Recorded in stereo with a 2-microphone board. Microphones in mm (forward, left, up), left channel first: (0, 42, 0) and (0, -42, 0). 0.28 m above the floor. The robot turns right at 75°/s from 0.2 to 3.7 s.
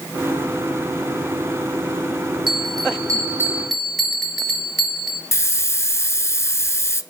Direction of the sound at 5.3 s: 35° left (ahead or behind).